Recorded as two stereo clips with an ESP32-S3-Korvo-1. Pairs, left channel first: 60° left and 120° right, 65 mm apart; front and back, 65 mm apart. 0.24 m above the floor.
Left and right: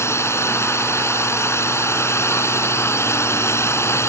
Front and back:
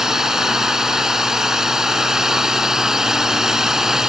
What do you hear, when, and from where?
0.0 s a drone: 100° left